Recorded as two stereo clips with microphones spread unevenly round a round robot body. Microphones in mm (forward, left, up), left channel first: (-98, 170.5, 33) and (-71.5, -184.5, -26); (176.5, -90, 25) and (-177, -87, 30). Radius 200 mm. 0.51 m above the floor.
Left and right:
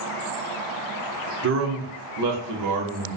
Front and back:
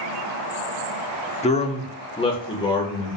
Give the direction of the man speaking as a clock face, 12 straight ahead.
2 o'clock.